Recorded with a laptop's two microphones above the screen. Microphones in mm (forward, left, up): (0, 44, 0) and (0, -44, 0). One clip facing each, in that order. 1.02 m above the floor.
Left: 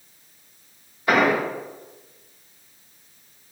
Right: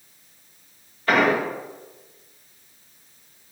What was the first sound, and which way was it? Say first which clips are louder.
An explosion: even; 15° left (ahead or behind).